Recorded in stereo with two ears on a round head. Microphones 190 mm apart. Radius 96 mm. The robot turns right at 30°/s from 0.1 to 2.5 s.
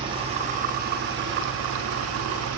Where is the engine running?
155° right, 0.8 m; by 2.6 s 85° right, 0.8 m.